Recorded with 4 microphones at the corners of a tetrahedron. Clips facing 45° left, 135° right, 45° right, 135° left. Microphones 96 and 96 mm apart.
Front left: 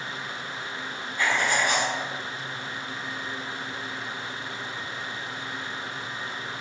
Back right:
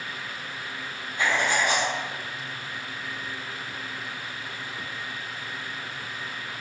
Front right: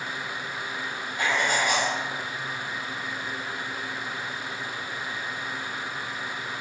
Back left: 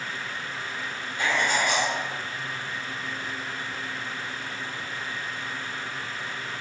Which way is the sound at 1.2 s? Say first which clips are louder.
Even, even; 75° right.